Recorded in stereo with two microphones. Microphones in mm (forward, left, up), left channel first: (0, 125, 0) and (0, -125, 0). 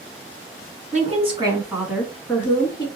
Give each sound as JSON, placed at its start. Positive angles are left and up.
{"t": 0.9, "sound": "a woman speaking", "side_deg": -30, "distance_m": 1.2}